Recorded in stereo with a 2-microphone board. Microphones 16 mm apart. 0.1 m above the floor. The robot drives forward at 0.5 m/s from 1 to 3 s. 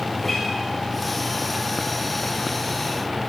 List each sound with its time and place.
0.1 s a guitar: 5° left (ahead or behind), 5 m